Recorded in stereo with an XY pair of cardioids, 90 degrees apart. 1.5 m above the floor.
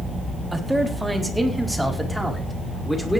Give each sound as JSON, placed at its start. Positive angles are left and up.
{"t": 0.5, "sound": "a man speaking", "azimuth_deg": -10, "distance_m": 3.5}